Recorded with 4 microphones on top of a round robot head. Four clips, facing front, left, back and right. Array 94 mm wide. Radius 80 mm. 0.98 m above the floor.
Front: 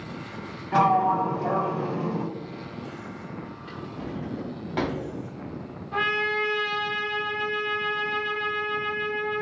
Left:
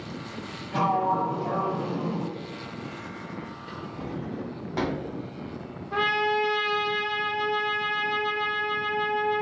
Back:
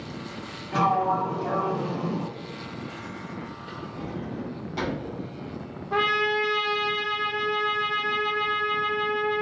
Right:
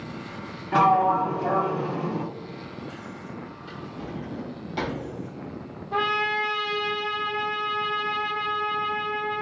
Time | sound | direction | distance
0.7 | a sliding door | 60° right | 0.9 m
3.7 | a drawer | 30° left | 0.7 m
5.9 | a trumpet | 175° left | 0.8 m